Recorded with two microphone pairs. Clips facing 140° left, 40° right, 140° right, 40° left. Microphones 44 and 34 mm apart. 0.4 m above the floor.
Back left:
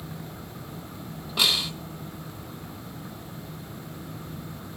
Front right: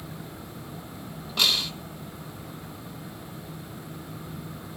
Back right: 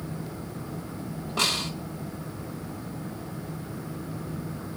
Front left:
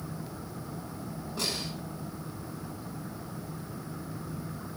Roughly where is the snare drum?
Behind right.